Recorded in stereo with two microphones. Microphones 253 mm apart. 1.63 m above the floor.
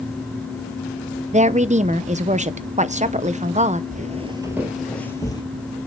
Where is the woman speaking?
25° right (ahead or behind), 0.7 m.